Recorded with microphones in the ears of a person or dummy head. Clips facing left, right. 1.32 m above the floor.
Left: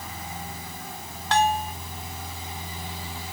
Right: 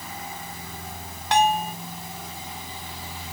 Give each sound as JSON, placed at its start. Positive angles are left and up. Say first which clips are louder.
{"t": 1.3, "sound": "a bell", "louder": "right 2 dB", "side_deg": -10}